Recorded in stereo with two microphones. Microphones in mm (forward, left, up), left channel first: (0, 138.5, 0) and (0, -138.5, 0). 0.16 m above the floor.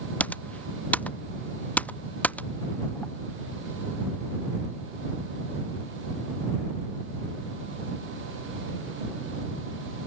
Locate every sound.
0.2 s typing on a keyboard: 5° left (ahead or behind)